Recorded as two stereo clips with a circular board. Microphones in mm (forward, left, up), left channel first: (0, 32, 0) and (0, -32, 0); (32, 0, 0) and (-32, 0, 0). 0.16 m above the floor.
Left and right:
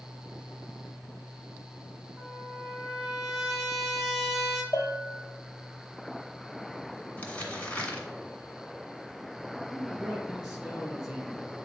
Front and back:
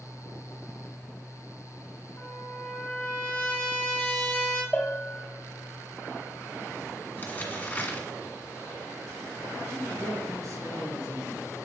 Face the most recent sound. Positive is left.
turn(degrees=-175)